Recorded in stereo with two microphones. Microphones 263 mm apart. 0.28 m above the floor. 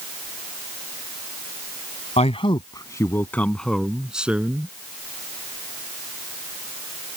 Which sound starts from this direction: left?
A man speaking, at 2.2 s.